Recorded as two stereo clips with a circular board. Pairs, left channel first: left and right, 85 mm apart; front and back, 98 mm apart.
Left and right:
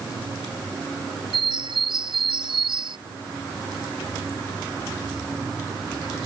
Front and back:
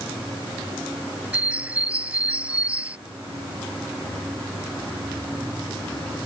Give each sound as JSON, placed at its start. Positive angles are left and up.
{"t": 1.3, "sound": "a bird", "azimuth_deg": -105}